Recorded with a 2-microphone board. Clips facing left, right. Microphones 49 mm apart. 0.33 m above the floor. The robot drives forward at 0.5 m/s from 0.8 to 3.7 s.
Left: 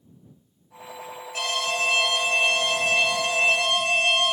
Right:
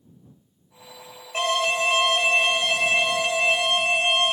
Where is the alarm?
35° right (ahead or behind), 1.0 m; by 4.3 s 25° right (ahead or behind), 1.5 m.